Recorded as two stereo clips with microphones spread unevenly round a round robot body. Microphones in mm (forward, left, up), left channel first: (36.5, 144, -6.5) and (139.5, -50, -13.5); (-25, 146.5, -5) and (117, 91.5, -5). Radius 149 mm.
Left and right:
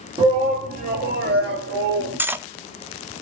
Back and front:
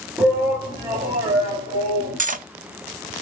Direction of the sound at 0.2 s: 80° right.